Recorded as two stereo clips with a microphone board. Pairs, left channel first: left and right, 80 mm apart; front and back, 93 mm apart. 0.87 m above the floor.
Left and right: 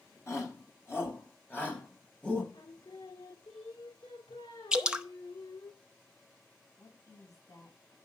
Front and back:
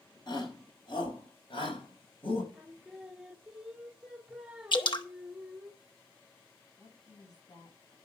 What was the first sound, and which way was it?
A shout, 35° left.